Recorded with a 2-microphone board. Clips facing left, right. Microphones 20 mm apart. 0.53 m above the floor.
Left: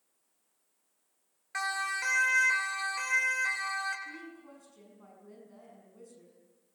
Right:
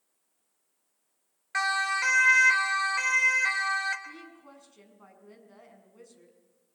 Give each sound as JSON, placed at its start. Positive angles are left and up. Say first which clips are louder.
{"t": 1.5, "sound": "a siren", "louder": "right 6 dB", "side_deg": -25, "distance_m": 2.0}
{"t": 4.0, "sound": "a woman speaking", "louder": "left 1 dB", "side_deg": -20, "distance_m": 6.0}